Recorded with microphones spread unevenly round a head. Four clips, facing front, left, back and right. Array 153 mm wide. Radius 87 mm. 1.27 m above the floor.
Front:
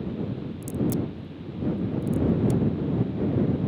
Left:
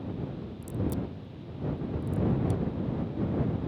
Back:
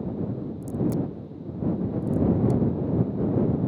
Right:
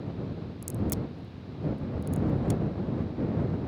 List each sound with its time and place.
0.6 s a crack: 70° right